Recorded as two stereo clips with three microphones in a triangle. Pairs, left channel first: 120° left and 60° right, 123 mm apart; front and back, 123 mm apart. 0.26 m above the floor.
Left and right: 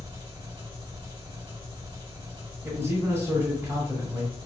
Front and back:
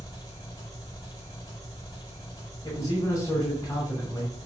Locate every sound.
0.0 s an engine running: 40° right, 1.5 m
2.6 s a man speaking: 20° right, 1.4 m